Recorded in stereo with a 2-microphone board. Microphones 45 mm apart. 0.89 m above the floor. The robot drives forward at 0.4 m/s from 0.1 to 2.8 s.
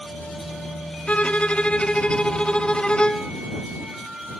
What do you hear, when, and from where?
1.1 s a violin: 30° left (ahead or behind); by 3.3 s 25° left (ahead or behind)